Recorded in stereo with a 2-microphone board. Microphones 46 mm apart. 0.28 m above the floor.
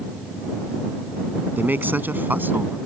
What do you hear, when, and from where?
1.6 s a man speaking: 45° right (ahead or behind); by 2.8 s 50° right (ahead or behind)